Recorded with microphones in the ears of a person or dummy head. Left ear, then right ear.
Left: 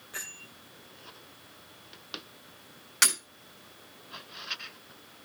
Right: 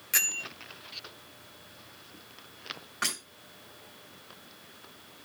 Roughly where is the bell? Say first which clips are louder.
Right 12 dB; right.